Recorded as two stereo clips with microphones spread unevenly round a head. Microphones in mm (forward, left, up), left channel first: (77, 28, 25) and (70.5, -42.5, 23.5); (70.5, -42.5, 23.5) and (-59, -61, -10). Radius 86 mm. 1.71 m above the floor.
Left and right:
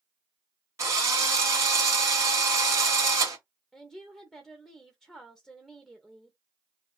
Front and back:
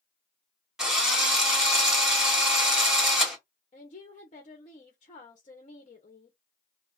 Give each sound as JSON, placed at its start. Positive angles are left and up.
{"t": 0.8, "sound": "a drill", "azimuth_deg": -70, "distance_m": 1.7}
{"t": 3.7, "sound": "a woman speaking", "azimuth_deg": -10, "distance_m": 1.1}